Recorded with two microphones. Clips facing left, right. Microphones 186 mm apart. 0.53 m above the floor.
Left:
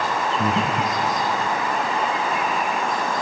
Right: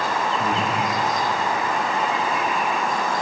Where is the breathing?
60° left (ahead or behind), 3 m.